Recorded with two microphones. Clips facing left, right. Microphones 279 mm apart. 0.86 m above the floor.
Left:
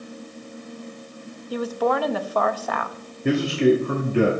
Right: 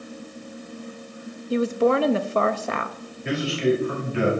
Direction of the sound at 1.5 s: 30° right (ahead or behind).